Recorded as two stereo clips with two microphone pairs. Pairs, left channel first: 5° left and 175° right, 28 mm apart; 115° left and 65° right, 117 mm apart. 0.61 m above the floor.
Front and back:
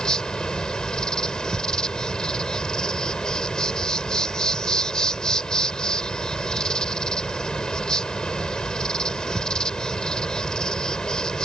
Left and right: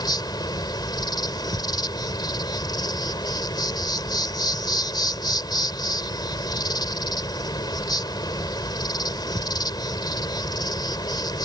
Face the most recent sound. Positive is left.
turn(degrees=65)